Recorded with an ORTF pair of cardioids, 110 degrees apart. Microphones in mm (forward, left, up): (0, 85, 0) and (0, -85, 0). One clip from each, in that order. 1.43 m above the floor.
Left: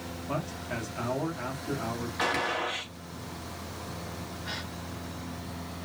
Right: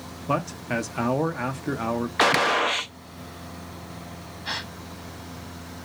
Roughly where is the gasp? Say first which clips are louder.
Right 7 dB; ahead right.